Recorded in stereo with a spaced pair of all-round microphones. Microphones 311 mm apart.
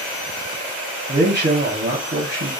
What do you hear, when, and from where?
1.1 s a man speaking: 35° right (ahead or behind), 0.9 m